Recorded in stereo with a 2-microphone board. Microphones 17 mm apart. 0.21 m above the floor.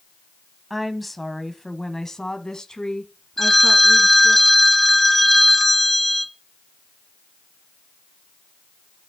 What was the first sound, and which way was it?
A woman speaking, 5° right (ahead or behind).